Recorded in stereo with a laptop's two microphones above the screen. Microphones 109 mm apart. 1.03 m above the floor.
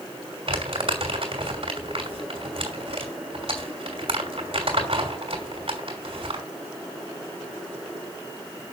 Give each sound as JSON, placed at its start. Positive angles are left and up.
{"t": 0.5, "sound": "crumpling", "side_deg": -60, "distance_m": 3.0}